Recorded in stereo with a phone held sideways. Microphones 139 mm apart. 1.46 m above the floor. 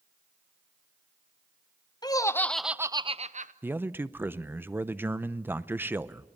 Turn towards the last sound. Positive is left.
turn(degrees=-15)  # may be behind; listen again after turning